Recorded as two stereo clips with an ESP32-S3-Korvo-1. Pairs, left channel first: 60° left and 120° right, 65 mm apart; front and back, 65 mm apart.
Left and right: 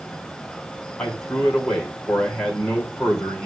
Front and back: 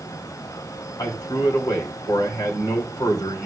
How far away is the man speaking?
About 4 m.